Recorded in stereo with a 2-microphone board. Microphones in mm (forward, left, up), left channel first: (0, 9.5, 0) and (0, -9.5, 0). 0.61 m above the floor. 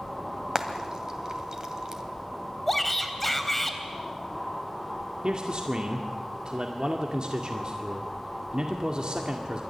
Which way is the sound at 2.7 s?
10° left (ahead or behind).